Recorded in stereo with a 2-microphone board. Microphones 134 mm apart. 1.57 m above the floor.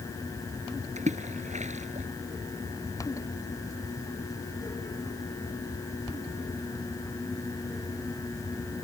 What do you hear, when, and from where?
1.0 s a splash: 70° right (ahead or behind)